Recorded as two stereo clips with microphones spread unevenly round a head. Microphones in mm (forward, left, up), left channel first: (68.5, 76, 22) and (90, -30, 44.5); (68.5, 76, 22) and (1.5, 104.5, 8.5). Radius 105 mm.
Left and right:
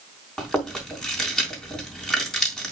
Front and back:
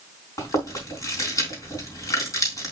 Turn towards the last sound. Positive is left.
turn(degrees=15)